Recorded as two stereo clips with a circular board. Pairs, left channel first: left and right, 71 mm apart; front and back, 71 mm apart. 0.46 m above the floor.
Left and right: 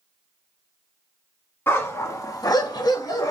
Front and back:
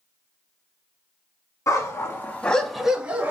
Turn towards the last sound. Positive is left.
turn(degrees=120)